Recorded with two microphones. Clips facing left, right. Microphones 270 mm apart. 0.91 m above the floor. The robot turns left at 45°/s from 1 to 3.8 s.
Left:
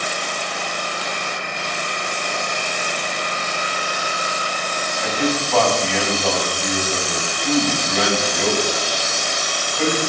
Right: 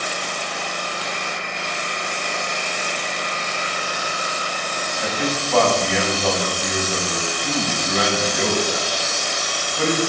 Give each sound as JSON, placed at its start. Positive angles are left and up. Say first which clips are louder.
{"t": 5.0, "sound": "a man speaking", "louder": "left 3 dB", "side_deg": -5, "distance_m": 7.0}